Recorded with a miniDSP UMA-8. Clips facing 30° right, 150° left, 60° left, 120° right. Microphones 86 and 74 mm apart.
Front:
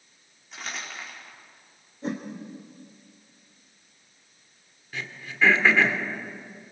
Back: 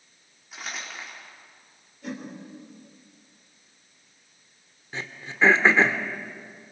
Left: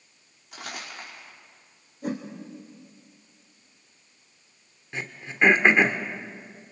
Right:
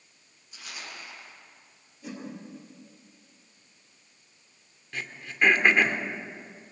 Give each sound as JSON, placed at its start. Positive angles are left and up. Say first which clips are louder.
{"t": 0.5, "sound": "crumpling", "louder": "even, left 5 dB", "azimuth_deg": 65, "distance_m": 5.0}
{"t": 2.0, "sound": "a whoosh", "louder": "front 4 dB, left 9 dB", "azimuth_deg": 25, "distance_m": 3.0}
{"t": 4.9, "sound": "throat clearing", "louder": "back 1 dB, left 2 dB", "azimuth_deg": 110, "distance_m": 1.4}